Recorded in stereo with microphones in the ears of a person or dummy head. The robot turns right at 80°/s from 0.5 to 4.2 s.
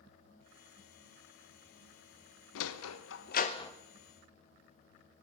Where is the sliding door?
65° left (ahead or behind), 0.9 m; by 3.7 s 10° left (ahead or behind), 0.9 m.